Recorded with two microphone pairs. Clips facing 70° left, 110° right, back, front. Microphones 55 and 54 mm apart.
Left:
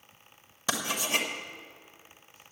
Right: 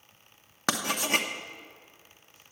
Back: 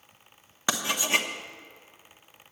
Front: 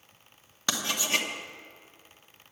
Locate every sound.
0.7 s writing: 110° right, 1.0 m